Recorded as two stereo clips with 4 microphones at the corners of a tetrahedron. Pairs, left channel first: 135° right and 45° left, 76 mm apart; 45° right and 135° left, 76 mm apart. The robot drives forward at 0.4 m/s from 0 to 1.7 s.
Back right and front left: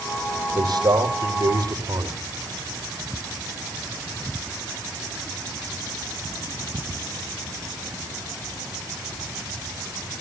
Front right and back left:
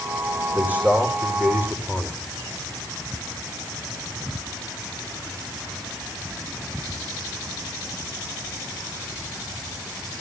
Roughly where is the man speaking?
Ahead left.